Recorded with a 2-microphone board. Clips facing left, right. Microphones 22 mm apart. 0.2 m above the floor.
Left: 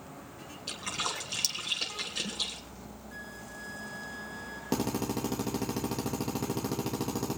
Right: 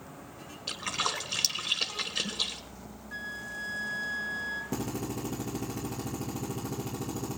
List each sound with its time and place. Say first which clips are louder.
0.7 s a splash: right 3 dB; 15° right (ahead or behind), 1.4 m
3.1 s a flute: right 8 dB; 25° right (ahead or behind), 1.0 m
4.7 s a drill: left 3 dB; 55° left (ahead or behind), 3 m